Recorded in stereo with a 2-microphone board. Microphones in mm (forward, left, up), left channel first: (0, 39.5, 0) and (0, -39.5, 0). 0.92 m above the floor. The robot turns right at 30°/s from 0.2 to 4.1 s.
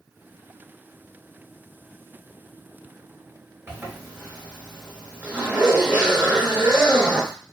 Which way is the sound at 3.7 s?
25° right (ahead or behind).